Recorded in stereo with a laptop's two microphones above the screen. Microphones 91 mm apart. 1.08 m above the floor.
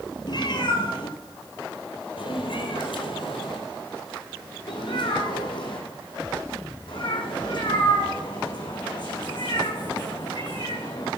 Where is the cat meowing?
55° left (ahead or behind), 1.8 m; by 11.1 s 50° left (ahead or behind), 6 m.